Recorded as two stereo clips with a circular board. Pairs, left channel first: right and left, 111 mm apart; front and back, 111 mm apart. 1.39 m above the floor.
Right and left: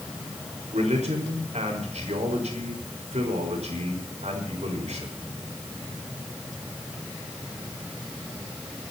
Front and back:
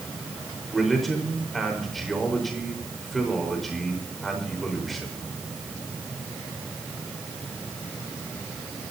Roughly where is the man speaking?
Left.